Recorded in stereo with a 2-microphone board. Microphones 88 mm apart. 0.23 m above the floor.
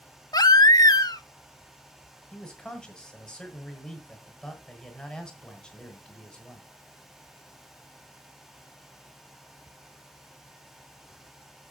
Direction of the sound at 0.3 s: 50° left (ahead or behind).